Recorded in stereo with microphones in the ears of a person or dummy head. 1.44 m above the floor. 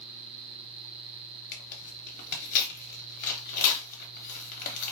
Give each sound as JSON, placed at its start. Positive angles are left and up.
{"t": 1.5, "sound": "tearing paper", "side_deg": 35, "distance_m": 0.9}